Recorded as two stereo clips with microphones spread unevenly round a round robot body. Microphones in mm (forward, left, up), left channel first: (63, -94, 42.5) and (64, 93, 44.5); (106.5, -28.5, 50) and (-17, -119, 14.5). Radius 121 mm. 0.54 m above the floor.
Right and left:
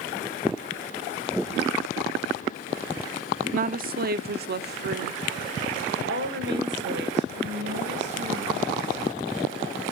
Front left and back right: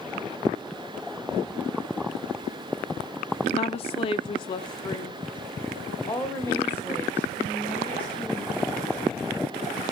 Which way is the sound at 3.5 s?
85° left.